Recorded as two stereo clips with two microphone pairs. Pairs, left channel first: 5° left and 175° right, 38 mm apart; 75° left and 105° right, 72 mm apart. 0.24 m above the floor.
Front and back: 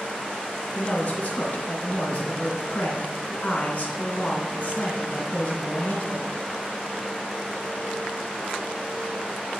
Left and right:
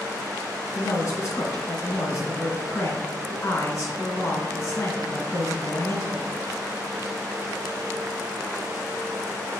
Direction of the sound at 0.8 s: 45° left.